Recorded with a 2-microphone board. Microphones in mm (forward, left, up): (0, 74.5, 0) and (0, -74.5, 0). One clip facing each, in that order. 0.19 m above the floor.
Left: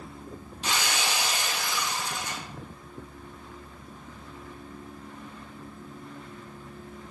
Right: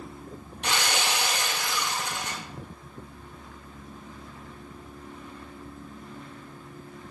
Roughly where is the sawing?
Right.